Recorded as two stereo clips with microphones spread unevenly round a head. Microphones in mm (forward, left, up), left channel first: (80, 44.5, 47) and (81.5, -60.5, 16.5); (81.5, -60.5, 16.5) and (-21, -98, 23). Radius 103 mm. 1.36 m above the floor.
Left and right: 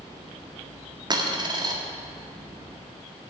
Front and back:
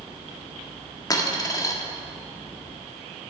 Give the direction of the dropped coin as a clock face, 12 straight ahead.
1 o'clock.